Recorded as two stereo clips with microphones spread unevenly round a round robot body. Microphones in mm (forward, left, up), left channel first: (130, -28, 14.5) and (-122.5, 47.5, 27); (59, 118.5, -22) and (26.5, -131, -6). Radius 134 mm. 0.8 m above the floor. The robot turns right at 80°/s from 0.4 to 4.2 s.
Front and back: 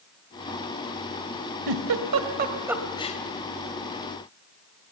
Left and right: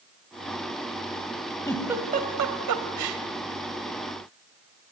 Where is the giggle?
160° left, 1.8 m; by 3.2 s 75° right, 1.8 m.